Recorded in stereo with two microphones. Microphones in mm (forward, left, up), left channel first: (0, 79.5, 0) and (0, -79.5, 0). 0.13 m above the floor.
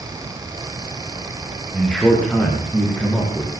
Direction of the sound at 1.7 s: 5° left (ahead or behind).